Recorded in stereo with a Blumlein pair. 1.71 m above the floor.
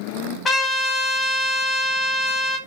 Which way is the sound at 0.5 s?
15° left.